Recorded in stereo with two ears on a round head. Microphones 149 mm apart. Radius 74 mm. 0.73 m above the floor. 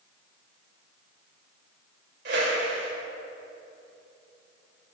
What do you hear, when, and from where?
2.2 s a whoosh: 70° right (ahead or behind), 2.5 m